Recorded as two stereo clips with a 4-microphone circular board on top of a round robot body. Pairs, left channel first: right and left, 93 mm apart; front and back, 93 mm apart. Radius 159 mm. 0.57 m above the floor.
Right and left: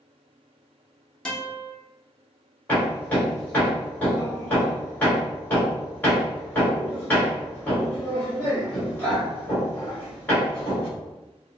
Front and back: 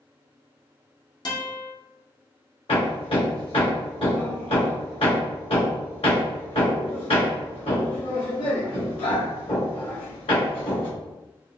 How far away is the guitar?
About 1.4 m.